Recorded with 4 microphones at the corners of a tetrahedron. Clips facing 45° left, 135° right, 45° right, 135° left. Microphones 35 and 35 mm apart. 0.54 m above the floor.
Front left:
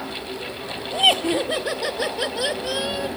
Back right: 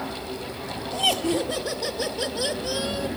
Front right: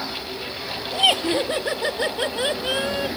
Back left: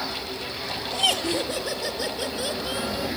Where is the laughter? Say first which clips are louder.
Front left 5 dB, front right 5 dB; 20° left, 1.4 m; by 3.1 s 20° right, 2.5 m.